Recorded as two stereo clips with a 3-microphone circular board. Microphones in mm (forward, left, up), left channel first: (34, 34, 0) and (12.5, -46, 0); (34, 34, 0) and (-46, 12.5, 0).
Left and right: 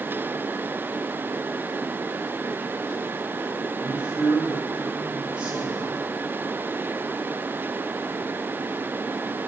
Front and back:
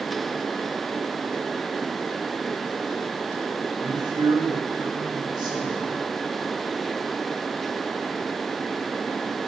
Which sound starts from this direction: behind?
A man speaking, at 3.8 s.